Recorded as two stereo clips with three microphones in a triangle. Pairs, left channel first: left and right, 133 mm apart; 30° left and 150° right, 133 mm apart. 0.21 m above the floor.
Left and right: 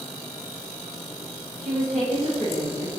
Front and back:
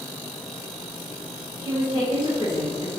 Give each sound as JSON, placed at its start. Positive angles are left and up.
{"t": 1.6, "sound": "a woman speaking", "azimuth_deg": 15, "distance_m": 1.5}